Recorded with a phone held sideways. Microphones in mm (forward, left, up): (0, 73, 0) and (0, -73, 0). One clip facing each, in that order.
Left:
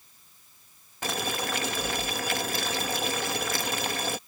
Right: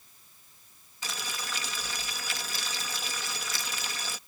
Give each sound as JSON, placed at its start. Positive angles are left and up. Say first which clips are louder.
{"t": 1.0, "sound": "boiling", "louder": "left 10 dB", "side_deg": 55}